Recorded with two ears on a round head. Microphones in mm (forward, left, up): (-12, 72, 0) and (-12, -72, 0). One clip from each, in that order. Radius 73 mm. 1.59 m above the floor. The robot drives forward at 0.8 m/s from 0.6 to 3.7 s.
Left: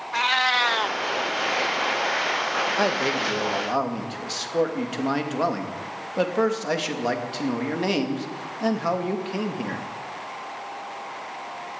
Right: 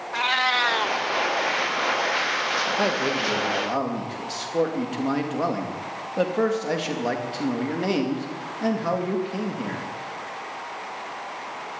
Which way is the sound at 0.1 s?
20° left (ahead or behind).